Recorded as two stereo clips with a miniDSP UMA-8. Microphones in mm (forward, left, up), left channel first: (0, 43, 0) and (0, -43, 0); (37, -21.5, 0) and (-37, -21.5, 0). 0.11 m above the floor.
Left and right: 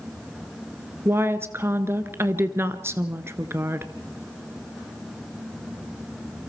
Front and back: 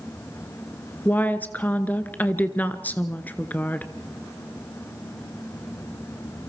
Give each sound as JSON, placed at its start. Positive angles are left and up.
{"t": 1.1, "sound": "a woman speaking", "azimuth_deg": -50, "distance_m": 1.3}